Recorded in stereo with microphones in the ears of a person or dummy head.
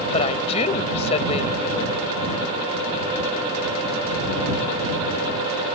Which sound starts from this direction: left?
A woman speaking, at 0.1 s.